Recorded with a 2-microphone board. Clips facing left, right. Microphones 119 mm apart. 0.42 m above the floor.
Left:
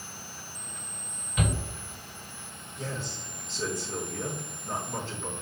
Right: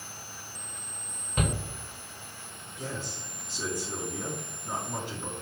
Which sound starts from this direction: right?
A shout, at 1.4 s.